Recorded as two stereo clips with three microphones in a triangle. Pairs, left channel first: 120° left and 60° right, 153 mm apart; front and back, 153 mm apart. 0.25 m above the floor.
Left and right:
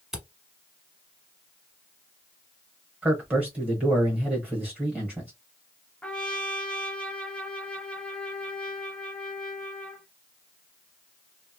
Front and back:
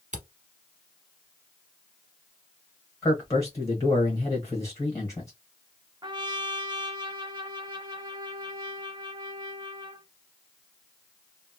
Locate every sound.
0.1 s a camera shutter: 150° right, 0.9 m
3.0 s a man speaking: 5° left, 1.2 m
6.0 s a trumpet: 165° right, 0.6 m